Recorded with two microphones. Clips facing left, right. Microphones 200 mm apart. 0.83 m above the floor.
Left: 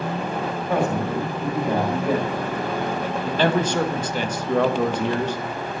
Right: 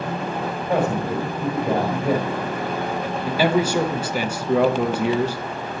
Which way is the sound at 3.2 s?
10° right (ahead or behind).